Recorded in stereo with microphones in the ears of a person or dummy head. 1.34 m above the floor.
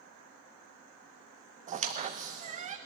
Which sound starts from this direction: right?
A squeak, at 1.7 s.